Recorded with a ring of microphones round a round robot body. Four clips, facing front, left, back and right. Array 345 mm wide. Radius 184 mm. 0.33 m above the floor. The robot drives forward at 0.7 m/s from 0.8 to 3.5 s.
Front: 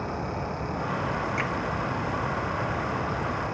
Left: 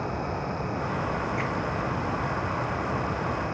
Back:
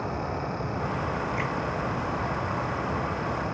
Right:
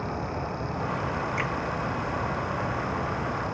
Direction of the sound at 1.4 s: 70° right.